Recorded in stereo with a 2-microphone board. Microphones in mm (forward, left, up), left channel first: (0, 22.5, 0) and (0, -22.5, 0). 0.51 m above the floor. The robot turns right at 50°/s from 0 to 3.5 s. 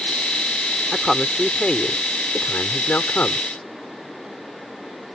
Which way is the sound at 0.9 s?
10° right.